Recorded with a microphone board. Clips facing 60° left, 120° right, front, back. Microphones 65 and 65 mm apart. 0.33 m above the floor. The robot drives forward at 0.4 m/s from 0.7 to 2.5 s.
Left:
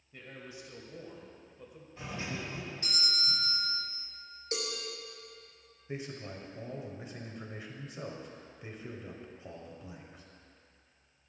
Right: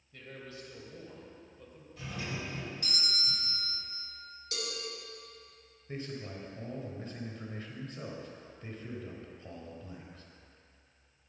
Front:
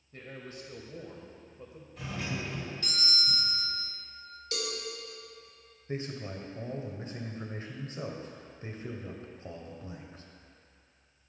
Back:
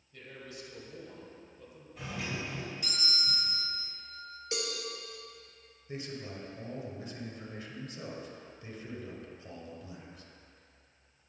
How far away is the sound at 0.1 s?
About 1.7 m.